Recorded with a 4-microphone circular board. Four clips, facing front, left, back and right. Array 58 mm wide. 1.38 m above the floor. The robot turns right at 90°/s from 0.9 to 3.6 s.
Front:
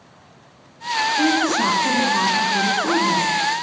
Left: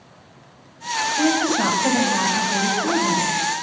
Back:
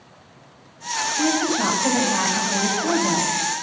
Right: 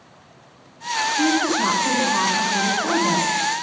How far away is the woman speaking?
About 9.5 m.